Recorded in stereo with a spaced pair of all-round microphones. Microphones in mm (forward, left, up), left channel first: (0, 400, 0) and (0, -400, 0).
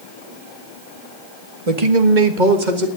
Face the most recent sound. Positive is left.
turn(degrees=-65)  # may be behind; listen again after turning